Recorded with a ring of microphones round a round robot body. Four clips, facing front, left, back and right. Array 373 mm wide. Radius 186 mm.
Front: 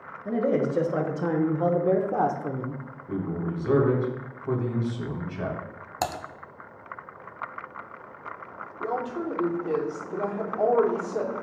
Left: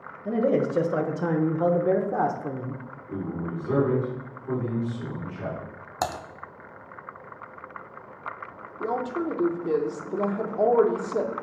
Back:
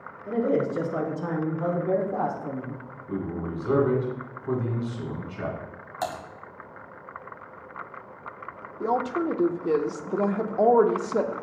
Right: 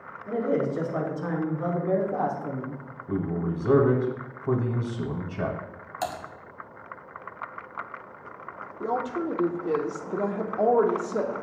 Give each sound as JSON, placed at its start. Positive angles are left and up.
{"t": 0.2, "sound": "a man speaking", "azimuth_deg": 65, "distance_m": 2.0}
{"t": 3.1, "sound": "a man speaking", "azimuth_deg": -80, "distance_m": 2.0}
{"t": 6.0, "sound": "typing on a keyboard", "azimuth_deg": 45, "distance_m": 0.7}
{"t": 8.8, "sound": "a woman speaking", "azimuth_deg": 175, "distance_m": 0.9}